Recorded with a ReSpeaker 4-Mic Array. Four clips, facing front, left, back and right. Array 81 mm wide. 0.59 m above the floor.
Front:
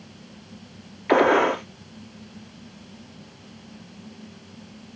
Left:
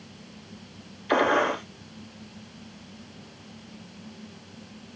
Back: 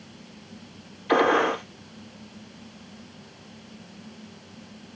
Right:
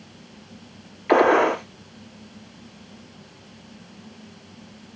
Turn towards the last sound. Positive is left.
turn(degrees=-40)